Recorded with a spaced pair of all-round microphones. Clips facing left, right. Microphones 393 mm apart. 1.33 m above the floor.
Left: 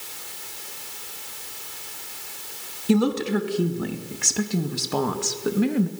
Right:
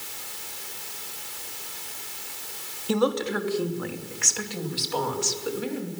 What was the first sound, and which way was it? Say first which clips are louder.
A woman speaking: left 4 dB; 35° left (ahead or behind).